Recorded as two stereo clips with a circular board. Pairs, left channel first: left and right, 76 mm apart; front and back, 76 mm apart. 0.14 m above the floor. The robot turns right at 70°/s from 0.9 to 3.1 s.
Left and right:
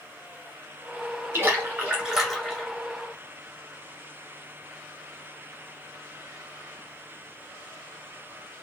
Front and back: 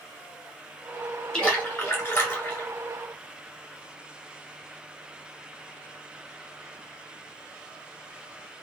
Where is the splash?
70° right, 1.9 m; by 2.7 s 25° left, 1.9 m.